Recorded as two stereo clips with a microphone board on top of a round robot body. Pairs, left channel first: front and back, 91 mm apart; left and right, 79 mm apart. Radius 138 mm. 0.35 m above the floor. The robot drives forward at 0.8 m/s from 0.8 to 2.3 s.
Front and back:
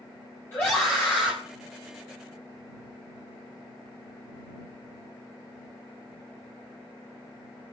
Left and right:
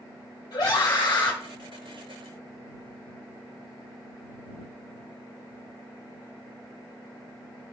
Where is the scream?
60° left, 2 m; by 1.4 s 75° left, 1.9 m.